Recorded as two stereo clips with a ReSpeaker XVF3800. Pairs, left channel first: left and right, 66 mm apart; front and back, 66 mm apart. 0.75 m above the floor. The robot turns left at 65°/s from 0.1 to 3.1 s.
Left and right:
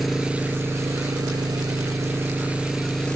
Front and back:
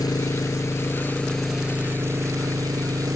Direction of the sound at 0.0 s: Straight ahead.